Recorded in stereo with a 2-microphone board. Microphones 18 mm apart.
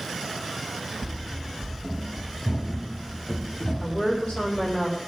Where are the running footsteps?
20° right (ahead or behind), 2.5 m; by 4.8 s 35° left (ahead or behind), 1.9 m.